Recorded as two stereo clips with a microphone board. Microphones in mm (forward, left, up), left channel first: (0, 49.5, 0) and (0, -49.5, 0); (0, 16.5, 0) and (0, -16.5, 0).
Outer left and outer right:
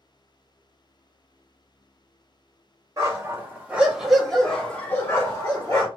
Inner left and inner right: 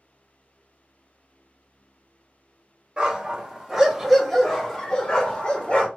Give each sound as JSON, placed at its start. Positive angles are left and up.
{"t": 3.0, "sound": "a dog barking", "side_deg": -30, "distance_m": 1.2}